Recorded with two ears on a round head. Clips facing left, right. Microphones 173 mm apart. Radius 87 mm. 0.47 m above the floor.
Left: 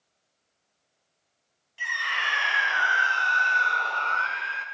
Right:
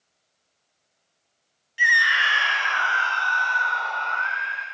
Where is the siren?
No siren in this recording.